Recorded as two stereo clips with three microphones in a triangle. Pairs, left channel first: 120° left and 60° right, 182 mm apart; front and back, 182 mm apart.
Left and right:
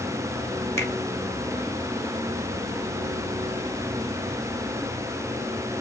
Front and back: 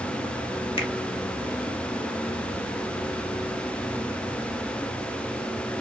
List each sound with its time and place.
0.8 s a finger snap: 50° left, 1.4 m